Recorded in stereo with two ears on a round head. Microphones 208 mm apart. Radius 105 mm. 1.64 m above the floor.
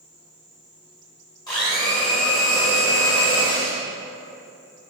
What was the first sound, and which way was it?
A blender, 20° left (ahead or behind).